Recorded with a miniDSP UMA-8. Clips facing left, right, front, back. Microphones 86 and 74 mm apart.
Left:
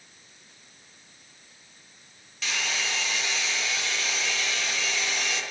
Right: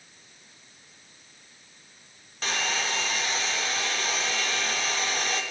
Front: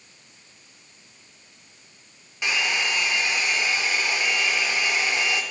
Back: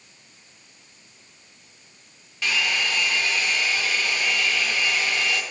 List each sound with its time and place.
2.4 s a hair dryer: 60° right, 0.8 m